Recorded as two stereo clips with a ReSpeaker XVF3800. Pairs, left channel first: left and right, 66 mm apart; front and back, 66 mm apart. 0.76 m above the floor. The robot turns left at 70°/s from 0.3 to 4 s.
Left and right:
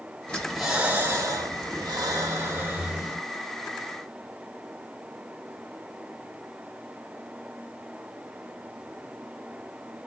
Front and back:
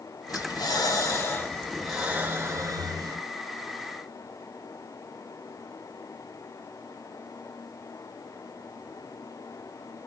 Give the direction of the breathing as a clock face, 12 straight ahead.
11 o'clock.